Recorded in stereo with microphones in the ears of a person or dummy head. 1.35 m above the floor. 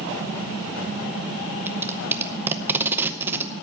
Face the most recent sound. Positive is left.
turn(degrees=-15)  # may be behind; listen again after turning